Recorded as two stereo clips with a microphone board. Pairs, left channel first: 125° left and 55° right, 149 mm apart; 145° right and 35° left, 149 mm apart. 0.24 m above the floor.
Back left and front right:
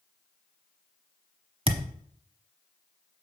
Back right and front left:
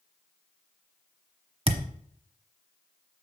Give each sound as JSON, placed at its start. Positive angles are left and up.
{"t": 1.7, "sound": "a thud", "azimuth_deg": -10, "distance_m": 0.9}